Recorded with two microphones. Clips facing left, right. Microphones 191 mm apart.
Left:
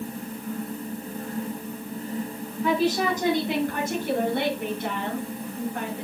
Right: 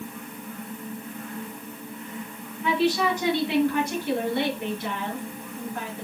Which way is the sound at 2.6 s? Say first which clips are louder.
Even; 40° left (ahead or behind).